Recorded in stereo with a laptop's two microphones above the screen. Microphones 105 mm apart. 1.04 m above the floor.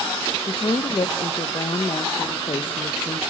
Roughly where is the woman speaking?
Left.